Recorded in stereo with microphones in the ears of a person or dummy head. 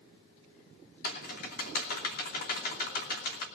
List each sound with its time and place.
1.0 s typing on a keyboard: 45° left (ahead or behind), 2.5 m